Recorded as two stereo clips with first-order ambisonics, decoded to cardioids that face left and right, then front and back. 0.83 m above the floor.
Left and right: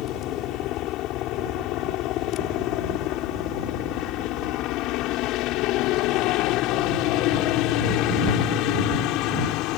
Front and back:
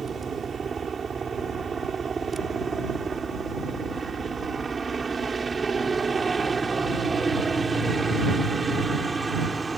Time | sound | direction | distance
0.0 | a helicopter | 115° left | ?